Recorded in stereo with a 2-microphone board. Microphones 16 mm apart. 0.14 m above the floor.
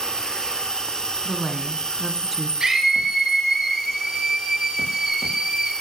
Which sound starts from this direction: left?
An insect, at 0.0 s.